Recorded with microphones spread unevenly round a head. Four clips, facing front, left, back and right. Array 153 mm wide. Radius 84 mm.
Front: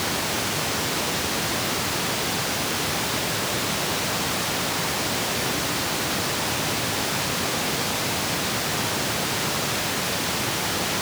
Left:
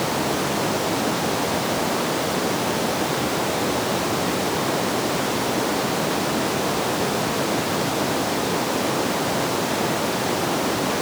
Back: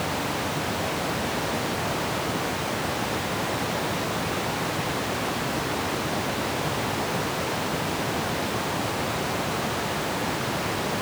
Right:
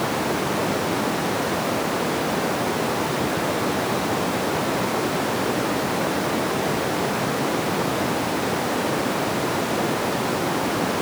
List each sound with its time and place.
Only background noise.